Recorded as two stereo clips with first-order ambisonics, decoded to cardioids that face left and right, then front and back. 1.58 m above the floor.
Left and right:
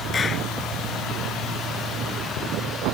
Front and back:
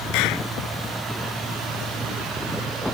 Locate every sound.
0.1 s a clap: 20° left